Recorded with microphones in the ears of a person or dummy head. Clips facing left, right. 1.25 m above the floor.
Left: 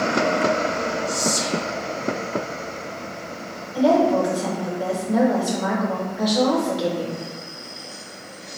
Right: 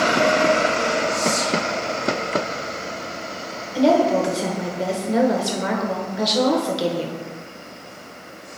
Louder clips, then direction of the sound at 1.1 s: Right 2 dB; 65° left (ahead or behind).